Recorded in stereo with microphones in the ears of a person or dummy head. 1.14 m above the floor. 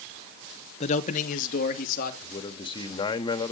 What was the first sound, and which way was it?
A man speaking, 35° left (ahead or behind).